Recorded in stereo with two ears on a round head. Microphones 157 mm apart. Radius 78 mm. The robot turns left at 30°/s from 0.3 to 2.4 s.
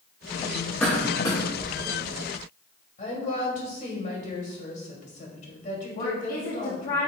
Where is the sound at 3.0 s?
40° left (ahead or behind), 2.5 m.